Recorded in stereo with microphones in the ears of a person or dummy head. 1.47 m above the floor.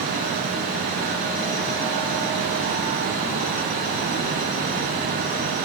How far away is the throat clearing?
I don't hear throat clearing.